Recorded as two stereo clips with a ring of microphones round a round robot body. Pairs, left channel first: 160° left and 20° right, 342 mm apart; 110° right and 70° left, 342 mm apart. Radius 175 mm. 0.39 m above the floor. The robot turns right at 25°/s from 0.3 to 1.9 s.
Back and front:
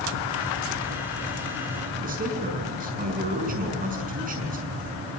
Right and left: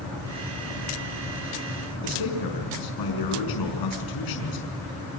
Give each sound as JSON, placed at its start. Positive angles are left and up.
{"t": 2.0, "sound": "a man speaking", "azimuth_deg": -90, "distance_m": 5.5}